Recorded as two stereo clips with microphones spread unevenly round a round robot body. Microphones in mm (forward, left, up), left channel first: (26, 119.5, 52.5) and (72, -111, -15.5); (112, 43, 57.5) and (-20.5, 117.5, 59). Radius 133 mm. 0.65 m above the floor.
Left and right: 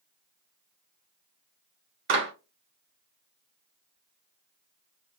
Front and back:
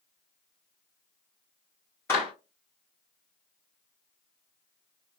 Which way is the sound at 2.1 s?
105° right.